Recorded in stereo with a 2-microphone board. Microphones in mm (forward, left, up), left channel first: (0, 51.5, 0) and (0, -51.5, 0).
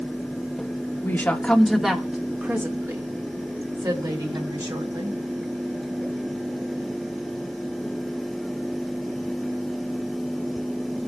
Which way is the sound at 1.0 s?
20° left (ahead or behind).